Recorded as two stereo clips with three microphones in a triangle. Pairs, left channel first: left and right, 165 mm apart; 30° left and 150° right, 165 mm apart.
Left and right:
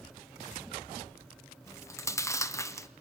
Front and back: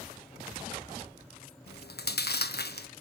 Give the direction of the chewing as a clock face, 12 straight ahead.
11 o'clock.